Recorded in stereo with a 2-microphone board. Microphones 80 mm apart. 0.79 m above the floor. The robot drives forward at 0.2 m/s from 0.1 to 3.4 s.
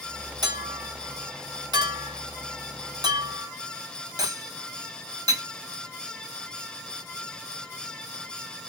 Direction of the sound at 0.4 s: 65° right (ahead or behind).